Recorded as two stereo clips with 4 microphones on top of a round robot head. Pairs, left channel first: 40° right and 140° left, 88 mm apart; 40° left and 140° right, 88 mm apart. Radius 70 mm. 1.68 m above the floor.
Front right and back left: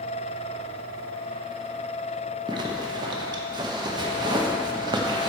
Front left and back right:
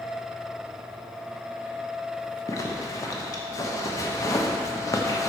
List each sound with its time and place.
2.5 s a zipper: 95° left, 1.0 m